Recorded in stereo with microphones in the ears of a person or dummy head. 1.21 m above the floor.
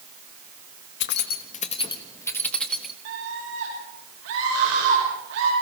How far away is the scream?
About 6.5 m.